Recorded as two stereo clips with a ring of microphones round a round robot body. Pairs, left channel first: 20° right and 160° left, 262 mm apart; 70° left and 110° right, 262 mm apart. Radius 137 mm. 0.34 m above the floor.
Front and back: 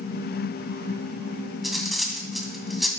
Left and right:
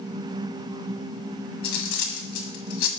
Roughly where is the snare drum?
No snare drum in this recording.